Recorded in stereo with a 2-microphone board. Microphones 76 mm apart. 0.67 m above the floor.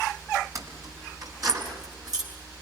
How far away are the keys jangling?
About 4 m.